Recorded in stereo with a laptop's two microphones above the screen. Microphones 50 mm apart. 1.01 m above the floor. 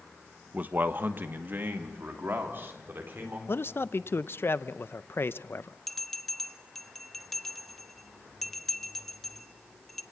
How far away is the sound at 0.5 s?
About 0.9 m.